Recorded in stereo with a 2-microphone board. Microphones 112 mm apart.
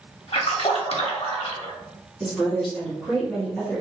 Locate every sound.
0.3 s a splash: 65° left (ahead or behind), 0.8 m
2.2 s a woman speaking: centre (ahead or behind), 1.8 m